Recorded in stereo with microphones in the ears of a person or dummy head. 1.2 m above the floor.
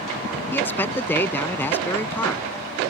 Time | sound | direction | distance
0.5 | a man speaking | 10° left (ahead or behind) | ?